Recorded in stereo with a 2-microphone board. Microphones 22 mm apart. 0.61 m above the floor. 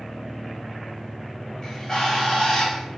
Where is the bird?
35° left (ahead or behind), 0.9 m.